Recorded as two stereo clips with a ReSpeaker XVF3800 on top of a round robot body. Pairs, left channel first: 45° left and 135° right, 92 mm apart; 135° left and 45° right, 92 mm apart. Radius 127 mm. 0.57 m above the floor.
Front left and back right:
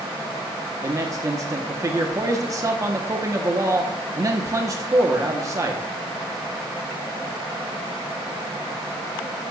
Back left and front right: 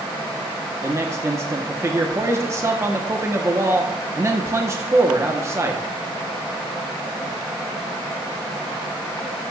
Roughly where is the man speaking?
Right.